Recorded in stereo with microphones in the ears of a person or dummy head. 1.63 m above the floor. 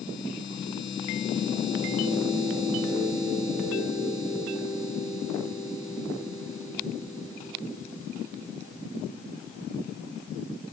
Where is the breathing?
No breathing in this recording.